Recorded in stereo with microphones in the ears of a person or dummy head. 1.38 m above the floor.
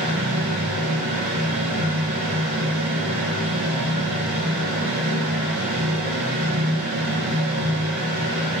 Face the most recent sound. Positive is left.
turn(degrees=-75)  # may be behind; listen again after turning